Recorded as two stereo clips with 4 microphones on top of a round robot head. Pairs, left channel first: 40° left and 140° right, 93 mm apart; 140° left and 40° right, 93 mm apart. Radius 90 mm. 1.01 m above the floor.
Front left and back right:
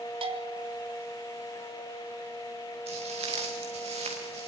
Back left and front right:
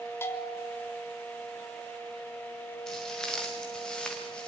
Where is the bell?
155° right, 3 m.